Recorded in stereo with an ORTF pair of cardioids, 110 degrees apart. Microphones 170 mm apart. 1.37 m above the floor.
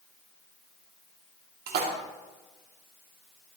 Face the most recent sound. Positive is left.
turn(degrees=-65)